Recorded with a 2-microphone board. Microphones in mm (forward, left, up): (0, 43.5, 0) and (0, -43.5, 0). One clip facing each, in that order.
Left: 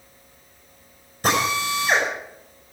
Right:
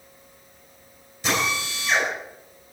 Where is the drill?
50° left (ahead or behind), 5.5 m.